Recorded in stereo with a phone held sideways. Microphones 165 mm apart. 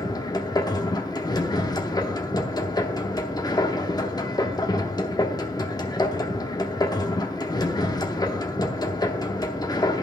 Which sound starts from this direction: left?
A machine running, at 0.0 s.